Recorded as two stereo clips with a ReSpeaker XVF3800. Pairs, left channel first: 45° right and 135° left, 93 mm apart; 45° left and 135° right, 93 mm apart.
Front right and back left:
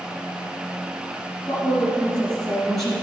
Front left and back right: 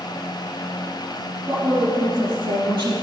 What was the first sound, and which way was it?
A woman speaking, 120° right.